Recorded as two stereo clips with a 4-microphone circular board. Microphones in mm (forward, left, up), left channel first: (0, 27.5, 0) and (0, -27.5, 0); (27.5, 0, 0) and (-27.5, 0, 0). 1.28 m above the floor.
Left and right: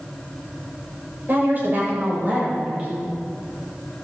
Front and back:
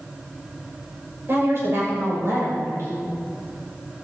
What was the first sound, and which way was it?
A woman speaking, 140° right.